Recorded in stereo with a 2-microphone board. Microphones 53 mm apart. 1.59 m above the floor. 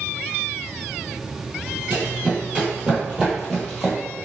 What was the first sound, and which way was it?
Running footsteps, 30° right (ahead or behind).